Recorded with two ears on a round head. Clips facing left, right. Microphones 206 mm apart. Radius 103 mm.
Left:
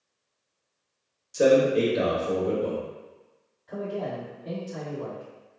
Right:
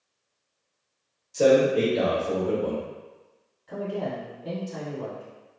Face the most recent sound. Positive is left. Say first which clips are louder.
# right 1 dB
turn(degrees=-50)  # may be behind; listen again after turning